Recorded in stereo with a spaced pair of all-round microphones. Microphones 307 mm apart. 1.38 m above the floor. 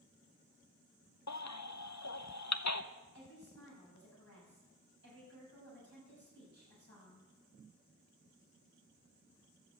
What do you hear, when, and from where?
1.3 s a baby crying: 60° left (ahead or behind), 0.7 m
3.1 s a woman speaking: 50° left (ahead or behind), 8.5 m